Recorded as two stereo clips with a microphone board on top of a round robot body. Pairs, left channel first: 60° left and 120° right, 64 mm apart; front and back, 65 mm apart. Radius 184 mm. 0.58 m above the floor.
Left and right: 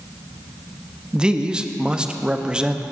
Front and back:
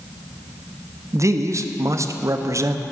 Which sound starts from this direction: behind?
A man speaking, at 1.1 s.